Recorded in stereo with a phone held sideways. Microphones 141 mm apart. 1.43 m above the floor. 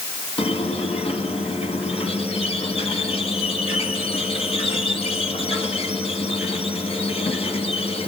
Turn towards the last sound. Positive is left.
turn(degrees=45)  # may be behind; listen again after turning